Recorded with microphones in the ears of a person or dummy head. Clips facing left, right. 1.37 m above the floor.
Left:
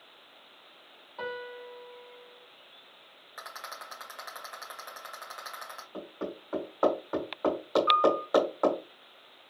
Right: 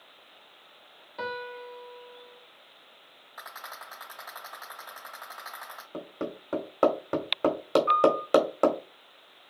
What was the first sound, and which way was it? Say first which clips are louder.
A piano: right 2 dB; 30° right (ahead or behind).